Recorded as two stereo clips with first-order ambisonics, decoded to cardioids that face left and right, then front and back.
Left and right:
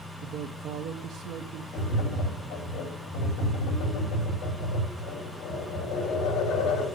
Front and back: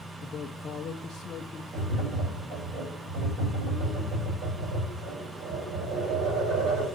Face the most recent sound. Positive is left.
turn(degrees=135)